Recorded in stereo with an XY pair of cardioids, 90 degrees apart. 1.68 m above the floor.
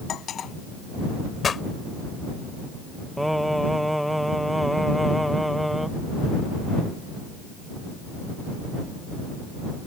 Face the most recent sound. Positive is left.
turn(degrees=0)